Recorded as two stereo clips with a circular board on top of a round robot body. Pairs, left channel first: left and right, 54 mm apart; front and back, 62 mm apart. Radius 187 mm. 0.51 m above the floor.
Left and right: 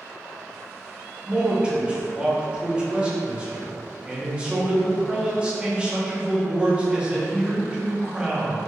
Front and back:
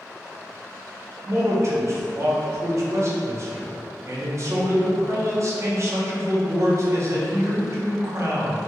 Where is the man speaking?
155° right, 0.8 m.